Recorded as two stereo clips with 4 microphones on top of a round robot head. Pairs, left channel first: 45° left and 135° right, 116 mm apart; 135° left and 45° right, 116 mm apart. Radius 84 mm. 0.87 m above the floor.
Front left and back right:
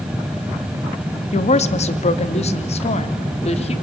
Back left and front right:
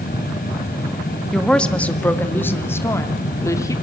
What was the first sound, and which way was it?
A woman speaking, 50° left.